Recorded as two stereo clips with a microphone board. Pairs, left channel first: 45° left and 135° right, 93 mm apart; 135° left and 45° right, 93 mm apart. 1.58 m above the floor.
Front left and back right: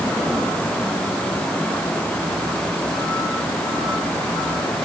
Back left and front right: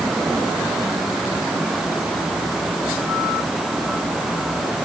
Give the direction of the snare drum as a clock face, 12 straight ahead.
I don't hear a snare drum.